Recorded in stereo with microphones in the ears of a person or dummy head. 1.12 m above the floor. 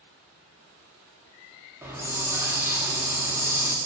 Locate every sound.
1.8 s a hiss: 15° right (ahead or behind), 1.3 m